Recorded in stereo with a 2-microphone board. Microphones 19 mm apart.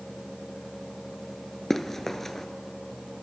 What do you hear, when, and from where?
1.7 s running footsteps: 20° left (ahead or behind), 0.6 m